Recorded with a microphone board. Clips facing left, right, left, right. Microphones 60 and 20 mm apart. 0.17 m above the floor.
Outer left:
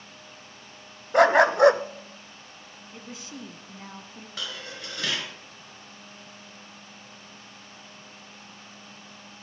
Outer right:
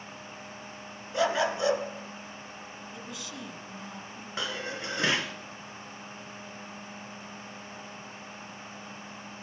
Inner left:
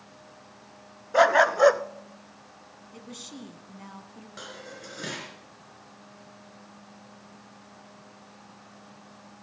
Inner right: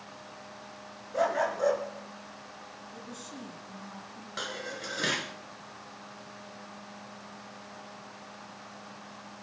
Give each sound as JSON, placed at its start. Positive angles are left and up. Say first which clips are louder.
{"t": 1.1, "sound": "a dog barking", "louder": "outer left 10 dB, inner left 9 dB", "side_deg": 60, "distance_m": 0.6}
{"t": 2.9, "sound": "a woman speaking", "louder": "outer left 2 dB, inner left 3 dB", "side_deg": 30, "distance_m": 1.4}
{"t": 4.4, "sound": "dishes clattering", "louder": "outer right 4 dB, inner right 6 dB", "side_deg": -25, "distance_m": 1.3}